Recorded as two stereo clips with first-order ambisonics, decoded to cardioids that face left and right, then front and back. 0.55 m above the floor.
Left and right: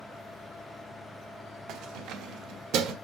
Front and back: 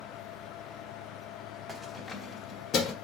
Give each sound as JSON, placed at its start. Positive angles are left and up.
{"t": 1.7, "sound": "keys jangling", "azimuth_deg": -95, "distance_m": 0.7}